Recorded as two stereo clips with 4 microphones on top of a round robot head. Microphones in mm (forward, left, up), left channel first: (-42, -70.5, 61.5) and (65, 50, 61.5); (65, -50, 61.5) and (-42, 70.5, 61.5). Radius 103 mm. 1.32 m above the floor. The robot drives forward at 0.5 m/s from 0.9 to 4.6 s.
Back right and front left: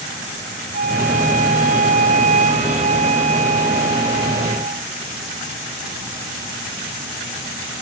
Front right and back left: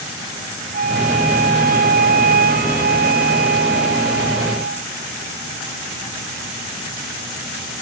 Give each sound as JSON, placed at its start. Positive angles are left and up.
{"t": 0.7, "sound": "a flute", "azimuth_deg": 95}